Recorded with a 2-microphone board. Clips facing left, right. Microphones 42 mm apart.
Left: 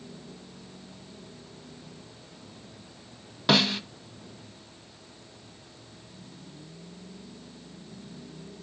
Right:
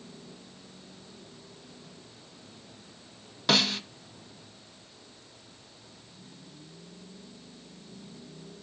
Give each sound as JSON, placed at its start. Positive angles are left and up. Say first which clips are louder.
{"t": 3.5, "sound": "a snare drum", "louder": "left 2 dB", "side_deg": 10, "distance_m": 0.5}